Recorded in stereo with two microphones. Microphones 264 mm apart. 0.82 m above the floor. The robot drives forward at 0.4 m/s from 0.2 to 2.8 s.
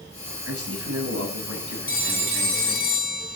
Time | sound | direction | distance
0.4 | a man speaking | 60° right (ahead or behind) | 6.5 m
1.9 | a phone ringing | 30° left (ahead or behind) | 3.5 m